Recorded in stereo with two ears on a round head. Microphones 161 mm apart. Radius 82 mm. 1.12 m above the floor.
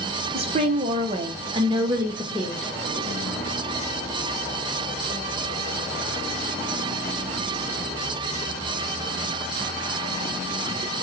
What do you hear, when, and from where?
0.3 s a woman speaking: 30° right (ahead or behind), 1.0 m; by 2.7 s 5° right (ahead or behind), 0.7 m